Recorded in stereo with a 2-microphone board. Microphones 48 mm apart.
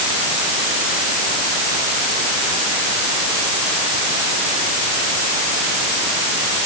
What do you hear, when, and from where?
Only background noise.